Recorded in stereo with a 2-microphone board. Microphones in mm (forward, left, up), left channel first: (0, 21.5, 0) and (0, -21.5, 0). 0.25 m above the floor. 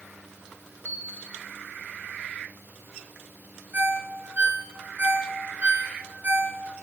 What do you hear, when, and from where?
0.8 s a bell: 60° left (ahead or behind), 2.5 m
3.7 s a ringtone: 40° right (ahead or behind), 2.5 m